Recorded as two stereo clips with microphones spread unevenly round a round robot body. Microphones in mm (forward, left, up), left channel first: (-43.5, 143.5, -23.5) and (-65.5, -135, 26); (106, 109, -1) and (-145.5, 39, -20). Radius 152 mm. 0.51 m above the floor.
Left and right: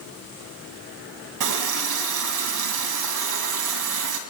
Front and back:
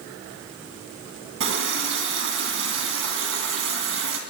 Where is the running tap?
110° right, 3 m.